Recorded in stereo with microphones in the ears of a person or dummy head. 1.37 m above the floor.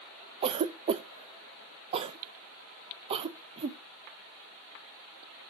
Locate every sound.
0.4 s a cough: 30° right (ahead or behind), 0.5 m